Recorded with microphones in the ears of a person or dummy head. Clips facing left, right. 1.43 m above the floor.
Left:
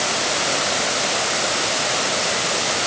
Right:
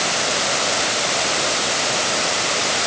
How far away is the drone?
No drone in this recording.